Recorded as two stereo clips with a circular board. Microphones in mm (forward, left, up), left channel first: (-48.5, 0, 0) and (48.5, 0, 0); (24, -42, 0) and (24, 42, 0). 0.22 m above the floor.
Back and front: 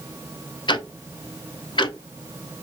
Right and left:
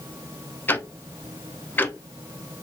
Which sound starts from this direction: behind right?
Ticking, at 0.7 s.